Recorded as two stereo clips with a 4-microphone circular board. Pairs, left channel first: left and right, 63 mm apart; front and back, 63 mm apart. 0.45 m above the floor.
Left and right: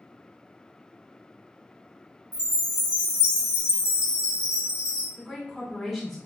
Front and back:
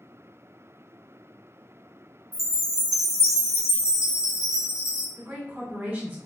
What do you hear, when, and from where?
2.3 s a chime: 20° right, 1.5 m
5.2 s a woman speaking: 175° right, 1.3 m